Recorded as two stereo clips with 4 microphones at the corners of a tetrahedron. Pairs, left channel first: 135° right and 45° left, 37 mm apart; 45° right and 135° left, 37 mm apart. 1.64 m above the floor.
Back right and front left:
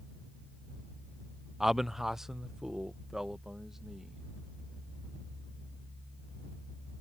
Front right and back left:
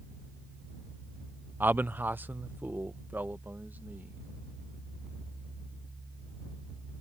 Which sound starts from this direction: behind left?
A man speaking, at 1.6 s.